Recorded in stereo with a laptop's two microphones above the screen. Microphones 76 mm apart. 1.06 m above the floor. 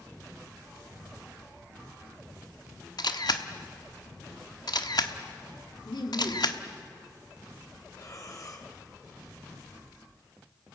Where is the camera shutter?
65° left (ahead or behind), 1.2 m.